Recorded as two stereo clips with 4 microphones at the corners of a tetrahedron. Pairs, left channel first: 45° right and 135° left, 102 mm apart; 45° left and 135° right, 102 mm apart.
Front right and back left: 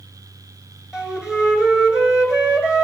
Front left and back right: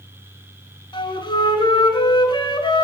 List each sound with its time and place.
0.9 s a flute: 55° left, 1.7 m